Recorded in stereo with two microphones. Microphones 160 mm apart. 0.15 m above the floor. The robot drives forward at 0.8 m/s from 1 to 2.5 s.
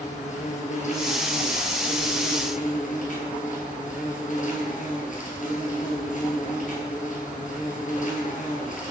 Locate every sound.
0.0 s an insect: 50° left (ahead or behind), 1.4 m; by 8.9 s 55° left (ahead or behind), 1.3 m